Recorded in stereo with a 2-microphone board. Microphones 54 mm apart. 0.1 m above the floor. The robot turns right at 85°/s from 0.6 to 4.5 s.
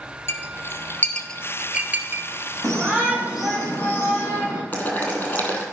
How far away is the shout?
About 5 m.